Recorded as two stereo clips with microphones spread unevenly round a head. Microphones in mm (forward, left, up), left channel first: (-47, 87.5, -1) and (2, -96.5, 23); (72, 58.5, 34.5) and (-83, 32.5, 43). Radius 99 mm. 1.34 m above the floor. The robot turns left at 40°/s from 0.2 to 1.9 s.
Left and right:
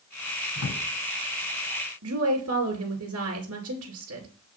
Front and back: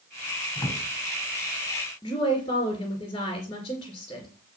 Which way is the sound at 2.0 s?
55° right.